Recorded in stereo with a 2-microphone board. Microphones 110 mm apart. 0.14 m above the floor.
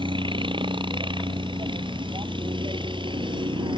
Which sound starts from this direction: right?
A helicopter, at 0.0 s.